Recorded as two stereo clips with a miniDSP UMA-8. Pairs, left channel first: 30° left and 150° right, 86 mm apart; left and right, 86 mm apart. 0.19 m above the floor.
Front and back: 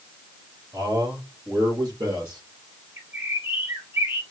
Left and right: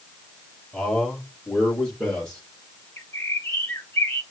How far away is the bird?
About 3 m.